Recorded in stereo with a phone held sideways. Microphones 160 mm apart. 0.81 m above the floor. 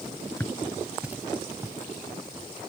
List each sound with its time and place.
0.4 s footsteps: 20° left (ahead or behind); by 2.5 s 20° right (ahead or behind)